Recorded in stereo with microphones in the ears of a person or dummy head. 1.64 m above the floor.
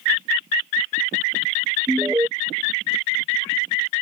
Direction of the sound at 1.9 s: 10° right (ahead or behind).